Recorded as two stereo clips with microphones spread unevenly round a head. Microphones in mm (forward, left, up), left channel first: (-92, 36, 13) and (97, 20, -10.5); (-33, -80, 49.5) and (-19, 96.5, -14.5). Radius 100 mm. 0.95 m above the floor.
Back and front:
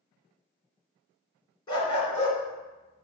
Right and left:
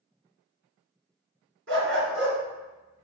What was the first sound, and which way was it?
A dog barking, 110° left.